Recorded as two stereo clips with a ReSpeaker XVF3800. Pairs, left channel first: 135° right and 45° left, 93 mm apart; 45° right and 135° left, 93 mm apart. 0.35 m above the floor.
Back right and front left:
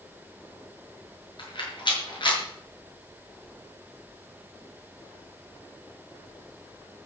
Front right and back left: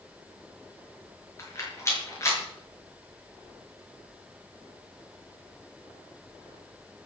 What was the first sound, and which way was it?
A rattle, 105° right.